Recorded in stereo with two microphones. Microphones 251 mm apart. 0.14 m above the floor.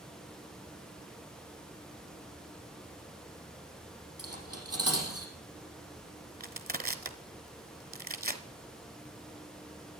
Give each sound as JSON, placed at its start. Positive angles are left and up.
{"t": 4.2, "sound": "cutlery clinking", "side_deg": -70, "distance_m": 3.5}
{"t": 6.4, "sound": "crushing", "side_deg": -35, "distance_m": 0.9}